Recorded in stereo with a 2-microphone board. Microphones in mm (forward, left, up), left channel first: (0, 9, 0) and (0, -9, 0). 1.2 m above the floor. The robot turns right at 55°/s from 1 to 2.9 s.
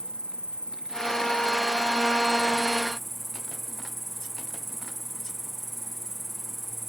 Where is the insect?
115° right, 0.7 m; by 6.9 s 10° right, 0.7 m.